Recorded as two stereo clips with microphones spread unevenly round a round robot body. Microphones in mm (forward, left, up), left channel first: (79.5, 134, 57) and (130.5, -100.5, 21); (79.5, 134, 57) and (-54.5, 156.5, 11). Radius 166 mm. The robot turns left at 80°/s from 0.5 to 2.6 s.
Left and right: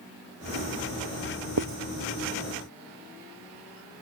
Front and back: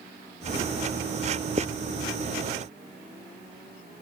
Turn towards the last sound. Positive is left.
turn(degrees=155)